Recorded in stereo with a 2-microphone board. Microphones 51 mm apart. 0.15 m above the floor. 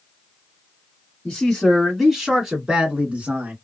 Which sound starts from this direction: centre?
A man speaking, at 1.2 s.